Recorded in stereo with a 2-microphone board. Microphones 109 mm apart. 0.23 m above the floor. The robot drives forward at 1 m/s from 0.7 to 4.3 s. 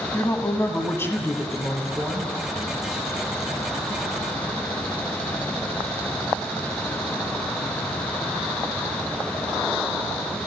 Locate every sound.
0.1 s a woman speaking: 25° left (ahead or behind), 1.2 m; by 2.3 s 10° left (ahead or behind), 2.5 m